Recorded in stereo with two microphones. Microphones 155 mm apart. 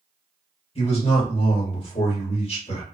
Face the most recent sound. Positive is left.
turn(degrees=40)  # may be behind; listen again after turning